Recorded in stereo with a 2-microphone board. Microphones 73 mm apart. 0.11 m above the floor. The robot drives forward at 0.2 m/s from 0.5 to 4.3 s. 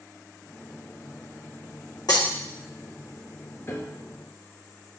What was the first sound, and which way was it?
Breaking glass, 70° left (ahead or behind).